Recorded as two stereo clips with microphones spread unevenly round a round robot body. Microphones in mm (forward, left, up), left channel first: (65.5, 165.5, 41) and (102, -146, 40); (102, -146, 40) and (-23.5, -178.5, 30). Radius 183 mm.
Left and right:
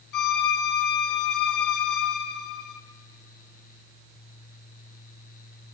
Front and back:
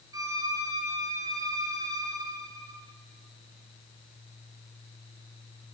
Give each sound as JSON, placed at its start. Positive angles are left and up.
{"t": 0.1, "sound": "a violin", "azimuth_deg": 125, "distance_m": 1.1}